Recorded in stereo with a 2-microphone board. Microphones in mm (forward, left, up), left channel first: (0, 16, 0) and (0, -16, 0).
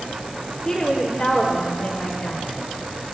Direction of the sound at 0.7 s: 25° left (ahead or behind).